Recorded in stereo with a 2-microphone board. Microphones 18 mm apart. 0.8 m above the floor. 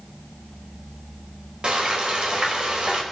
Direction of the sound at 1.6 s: 70° right (ahead or behind).